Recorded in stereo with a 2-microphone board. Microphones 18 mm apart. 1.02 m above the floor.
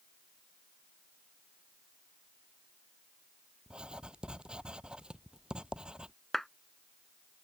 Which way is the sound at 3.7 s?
60° right (ahead or behind).